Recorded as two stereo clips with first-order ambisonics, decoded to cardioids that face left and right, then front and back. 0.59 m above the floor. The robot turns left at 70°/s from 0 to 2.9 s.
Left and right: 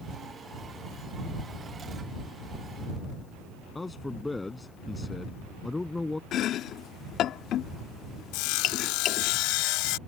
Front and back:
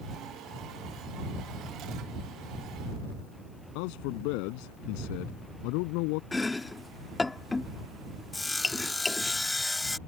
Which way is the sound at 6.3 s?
75° left.